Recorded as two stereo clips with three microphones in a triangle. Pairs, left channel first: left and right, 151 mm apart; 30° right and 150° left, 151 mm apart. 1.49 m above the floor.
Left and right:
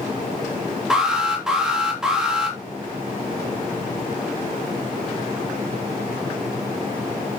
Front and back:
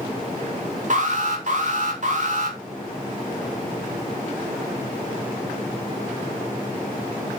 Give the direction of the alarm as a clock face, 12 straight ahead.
6 o'clock.